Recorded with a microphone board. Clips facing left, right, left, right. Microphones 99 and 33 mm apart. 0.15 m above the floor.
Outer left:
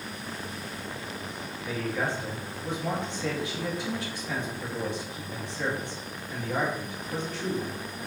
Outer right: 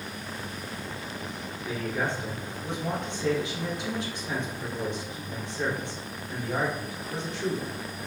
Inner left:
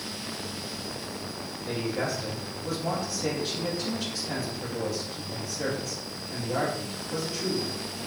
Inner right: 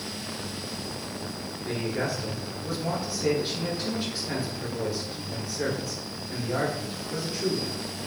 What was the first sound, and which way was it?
A man speaking, 20° right (ahead or behind).